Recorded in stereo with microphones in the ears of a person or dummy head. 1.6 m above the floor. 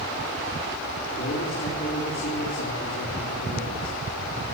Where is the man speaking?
45° left (ahead or behind), 4.5 m.